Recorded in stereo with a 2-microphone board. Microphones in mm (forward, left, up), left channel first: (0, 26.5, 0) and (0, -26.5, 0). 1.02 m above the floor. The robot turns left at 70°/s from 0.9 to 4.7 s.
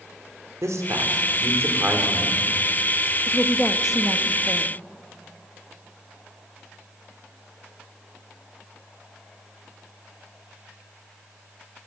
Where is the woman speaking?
35° left, 1.1 m; by 4.7 s 65° right, 1.1 m.